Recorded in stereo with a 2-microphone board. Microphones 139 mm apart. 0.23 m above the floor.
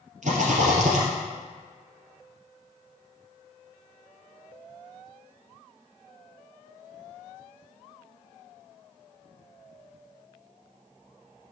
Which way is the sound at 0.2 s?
65° right (ahead or behind).